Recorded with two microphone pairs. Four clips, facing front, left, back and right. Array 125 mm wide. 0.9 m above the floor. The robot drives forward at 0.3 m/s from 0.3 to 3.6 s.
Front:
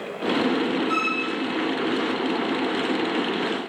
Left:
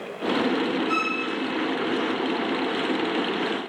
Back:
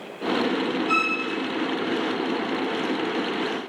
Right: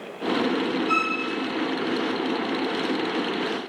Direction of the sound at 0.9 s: 90° right.